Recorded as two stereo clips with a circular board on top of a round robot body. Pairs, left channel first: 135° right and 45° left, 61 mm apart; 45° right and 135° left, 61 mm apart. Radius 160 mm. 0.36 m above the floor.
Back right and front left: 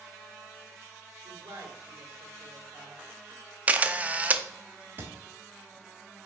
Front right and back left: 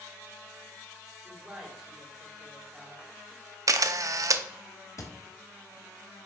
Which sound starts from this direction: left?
A camera shutter, at 3.7 s.